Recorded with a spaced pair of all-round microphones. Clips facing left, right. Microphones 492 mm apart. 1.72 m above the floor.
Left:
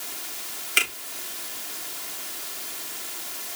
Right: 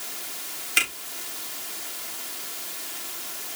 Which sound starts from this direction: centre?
A finger snap, at 0.8 s.